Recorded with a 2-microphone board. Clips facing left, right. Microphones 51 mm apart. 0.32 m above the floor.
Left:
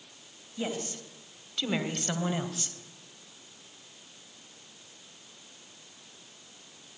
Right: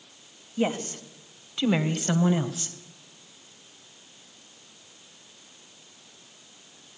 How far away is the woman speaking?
About 1.9 m.